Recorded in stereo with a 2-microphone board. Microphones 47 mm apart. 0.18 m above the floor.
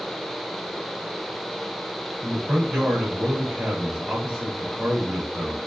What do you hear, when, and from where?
2.2 s a man speaking: 10° right (ahead or behind), 2 m